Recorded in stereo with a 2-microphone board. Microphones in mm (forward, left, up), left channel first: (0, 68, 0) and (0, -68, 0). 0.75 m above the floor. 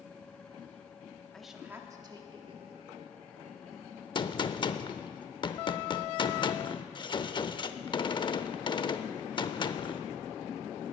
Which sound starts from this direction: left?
A gunshot, at 4.2 s.